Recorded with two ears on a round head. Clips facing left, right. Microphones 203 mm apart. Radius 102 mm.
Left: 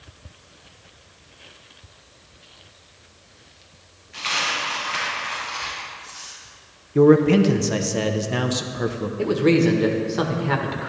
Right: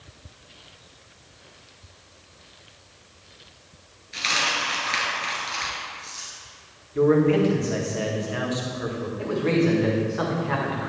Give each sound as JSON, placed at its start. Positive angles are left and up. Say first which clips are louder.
{"t": 4.1, "sound": "a dropped coin", "louder": "even", "side_deg": -60, "distance_m": 3.0}
{"t": 7.0, "sound": "a man speaking", "louder": "left 4 dB", "side_deg": 60, "distance_m": 0.9}
{"t": 9.2, "sound": "a man speaking", "louder": "left 5 dB", "side_deg": 55, "distance_m": 1.5}